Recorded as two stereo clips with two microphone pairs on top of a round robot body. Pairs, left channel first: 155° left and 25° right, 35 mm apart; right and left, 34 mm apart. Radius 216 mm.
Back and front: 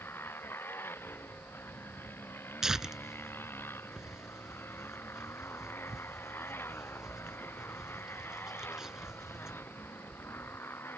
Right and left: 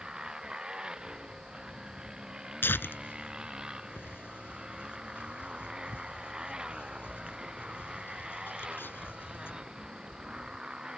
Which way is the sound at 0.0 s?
160° left.